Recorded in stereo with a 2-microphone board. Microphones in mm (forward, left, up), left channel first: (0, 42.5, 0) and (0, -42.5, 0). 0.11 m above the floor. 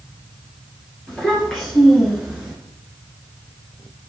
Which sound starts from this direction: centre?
A child speaking, at 1.1 s.